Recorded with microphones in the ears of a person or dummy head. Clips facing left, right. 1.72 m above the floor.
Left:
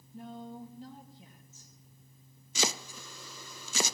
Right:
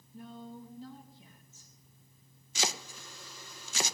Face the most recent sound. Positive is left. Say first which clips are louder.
# left 2 dB
turn(degrees=80)